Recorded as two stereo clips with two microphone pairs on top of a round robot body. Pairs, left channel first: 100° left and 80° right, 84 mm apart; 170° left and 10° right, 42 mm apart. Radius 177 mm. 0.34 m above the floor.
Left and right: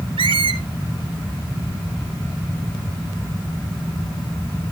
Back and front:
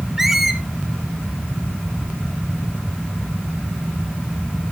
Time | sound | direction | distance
0.2 | a squeak | 95° right | 0.8 m